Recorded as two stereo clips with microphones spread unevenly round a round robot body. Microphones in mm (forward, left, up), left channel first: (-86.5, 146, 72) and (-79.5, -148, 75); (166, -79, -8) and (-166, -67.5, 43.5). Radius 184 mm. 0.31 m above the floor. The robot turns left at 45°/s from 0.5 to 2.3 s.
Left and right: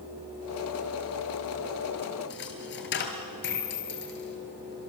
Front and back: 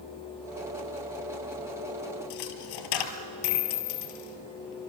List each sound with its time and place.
2.3 s a dropped coin: 30° left, 1.7 m